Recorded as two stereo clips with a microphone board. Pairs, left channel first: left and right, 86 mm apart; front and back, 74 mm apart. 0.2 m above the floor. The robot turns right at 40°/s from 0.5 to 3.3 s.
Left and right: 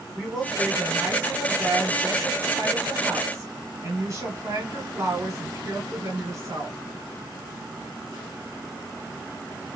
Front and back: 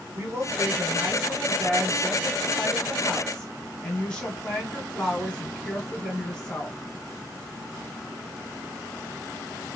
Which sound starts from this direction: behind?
A woman speaking, at 0.1 s.